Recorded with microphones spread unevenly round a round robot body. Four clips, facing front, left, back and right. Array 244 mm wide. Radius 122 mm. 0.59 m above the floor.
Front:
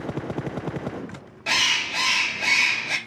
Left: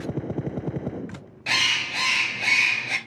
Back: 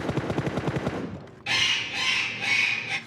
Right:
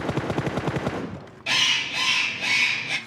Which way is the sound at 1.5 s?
25° left.